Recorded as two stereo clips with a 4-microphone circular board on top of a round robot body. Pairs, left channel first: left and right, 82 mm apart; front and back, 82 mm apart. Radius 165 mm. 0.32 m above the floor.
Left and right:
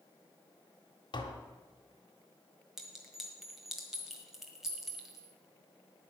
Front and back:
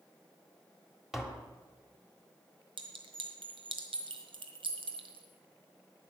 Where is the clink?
175° right, 1.5 m.